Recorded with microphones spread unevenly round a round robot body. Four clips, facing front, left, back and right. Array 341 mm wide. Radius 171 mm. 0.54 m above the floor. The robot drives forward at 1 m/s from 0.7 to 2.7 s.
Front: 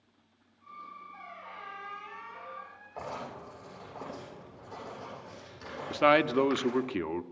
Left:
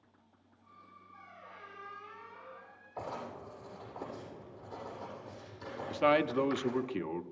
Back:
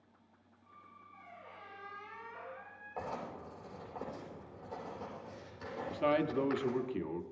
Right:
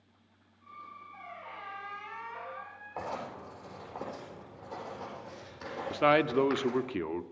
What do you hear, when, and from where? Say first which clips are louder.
1.1 s a squeak: right 6 dB, front 7 dB; 55° right, 2.5 m; by 3.3 s 95° right, 1.9 m
3.0 s writing: right 3 dB, front 2 dB; 85° right, 9 m
5.9 s a man speaking: right 3 dB, front 8 dB; 40° right, 0.9 m